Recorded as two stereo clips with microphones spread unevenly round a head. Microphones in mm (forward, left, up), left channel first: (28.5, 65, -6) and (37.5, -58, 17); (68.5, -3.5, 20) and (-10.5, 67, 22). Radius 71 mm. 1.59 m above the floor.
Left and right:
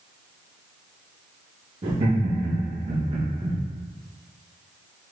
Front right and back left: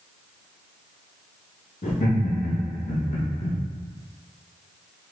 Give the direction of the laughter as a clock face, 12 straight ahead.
2 o'clock.